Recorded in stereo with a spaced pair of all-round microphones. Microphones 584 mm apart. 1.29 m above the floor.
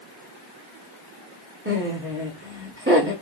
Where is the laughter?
20° right (ahead or behind), 1.6 m.